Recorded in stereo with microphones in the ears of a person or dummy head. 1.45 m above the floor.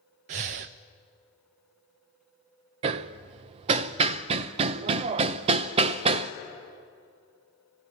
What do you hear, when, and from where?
0.3 s breathing: 35° right (ahead or behind), 0.6 m
2.8 s hammering: 30° right (ahead or behind), 0.6 m